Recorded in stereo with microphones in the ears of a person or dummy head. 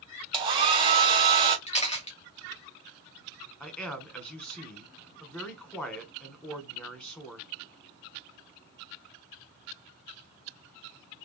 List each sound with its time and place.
0.3 s a hair dryer: 30° right (ahead or behind), 0.9 m
1.7 s a camera shutter: 40° left (ahead or behind), 1.1 m
3.6 s a man speaking: 10° left (ahead or behind), 1.4 m